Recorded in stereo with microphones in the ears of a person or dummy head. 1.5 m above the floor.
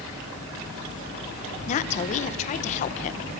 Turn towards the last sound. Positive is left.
turn(degrees=40)  # may be behind; listen again after turning